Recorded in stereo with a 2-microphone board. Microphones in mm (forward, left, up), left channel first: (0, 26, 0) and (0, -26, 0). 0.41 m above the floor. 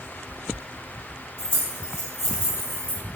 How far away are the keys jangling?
About 1.5 m.